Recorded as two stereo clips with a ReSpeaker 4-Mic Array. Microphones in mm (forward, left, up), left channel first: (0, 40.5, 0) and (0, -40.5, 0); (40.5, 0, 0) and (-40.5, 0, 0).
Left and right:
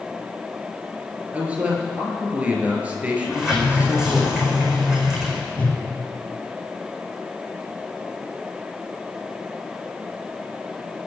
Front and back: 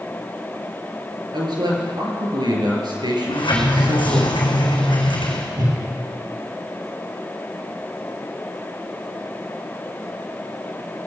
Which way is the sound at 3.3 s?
10° right.